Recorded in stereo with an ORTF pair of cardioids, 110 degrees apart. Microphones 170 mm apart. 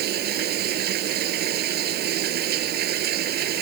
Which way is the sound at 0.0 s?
70° right.